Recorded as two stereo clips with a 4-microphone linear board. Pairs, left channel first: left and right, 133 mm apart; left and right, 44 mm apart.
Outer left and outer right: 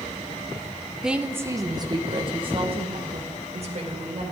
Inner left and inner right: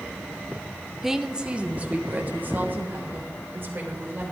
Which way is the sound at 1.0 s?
5° right (ahead or behind).